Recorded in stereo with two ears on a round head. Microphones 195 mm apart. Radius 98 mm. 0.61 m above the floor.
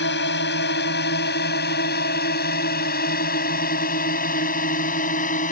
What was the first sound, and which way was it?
A drone, 50° left (ahead or behind).